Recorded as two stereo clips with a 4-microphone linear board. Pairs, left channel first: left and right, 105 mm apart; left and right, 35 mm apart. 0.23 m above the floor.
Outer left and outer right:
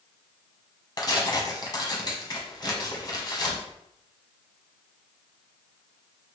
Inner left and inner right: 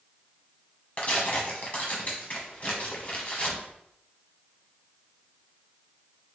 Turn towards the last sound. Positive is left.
turn(degrees=40)  # may be behind; listen again after turning